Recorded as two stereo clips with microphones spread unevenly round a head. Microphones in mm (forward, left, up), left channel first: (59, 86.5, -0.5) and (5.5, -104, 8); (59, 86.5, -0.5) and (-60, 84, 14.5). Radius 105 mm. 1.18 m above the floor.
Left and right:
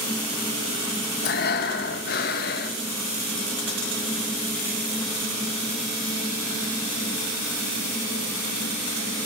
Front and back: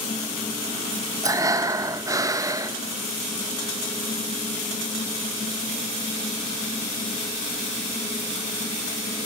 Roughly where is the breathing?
Behind left.